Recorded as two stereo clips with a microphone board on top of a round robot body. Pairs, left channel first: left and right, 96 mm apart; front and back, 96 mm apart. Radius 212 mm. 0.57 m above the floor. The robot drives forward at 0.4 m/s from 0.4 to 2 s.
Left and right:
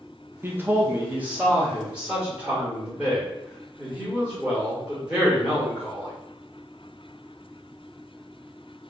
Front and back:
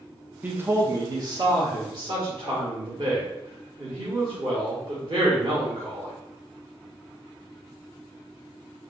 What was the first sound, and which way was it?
A man speaking, 125° right.